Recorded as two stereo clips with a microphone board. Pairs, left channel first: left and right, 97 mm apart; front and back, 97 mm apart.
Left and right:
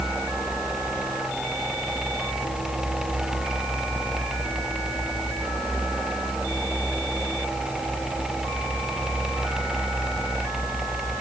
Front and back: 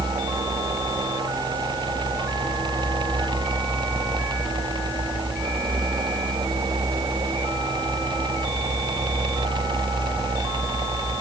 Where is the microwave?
No microwave in this recording.